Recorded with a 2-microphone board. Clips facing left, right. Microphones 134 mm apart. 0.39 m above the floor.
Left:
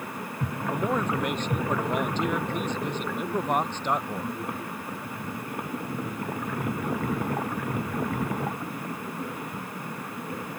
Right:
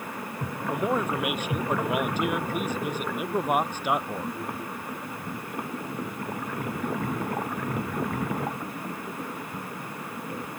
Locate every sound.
0.7 s a man speaking: 10° right (ahead or behind)